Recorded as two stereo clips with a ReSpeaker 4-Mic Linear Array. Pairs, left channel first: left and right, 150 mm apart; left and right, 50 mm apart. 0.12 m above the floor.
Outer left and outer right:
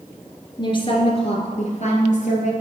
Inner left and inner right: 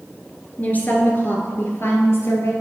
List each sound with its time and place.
0.6 s a woman speaking: 30° left (ahead or behind), 1.6 m; by 2.5 s 60° left (ahead or behind), 2 m